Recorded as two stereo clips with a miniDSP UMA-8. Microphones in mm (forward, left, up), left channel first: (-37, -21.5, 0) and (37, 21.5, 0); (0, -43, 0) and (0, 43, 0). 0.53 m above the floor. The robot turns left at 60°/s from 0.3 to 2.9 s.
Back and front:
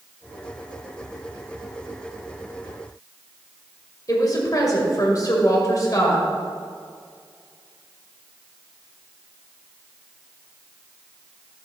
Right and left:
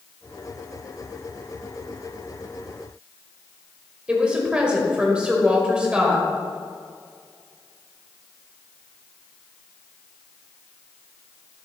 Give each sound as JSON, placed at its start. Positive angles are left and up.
{"t": 4.1, "sound": "a woman speaking", "azimuth_deg": 165, "distance_m": 2.0}